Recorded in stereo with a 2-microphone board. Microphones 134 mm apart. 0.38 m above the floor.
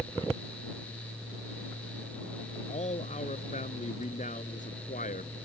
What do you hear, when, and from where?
2.7 s a man speaking: 55° left (ahead or behind); by 5.3 s 80° left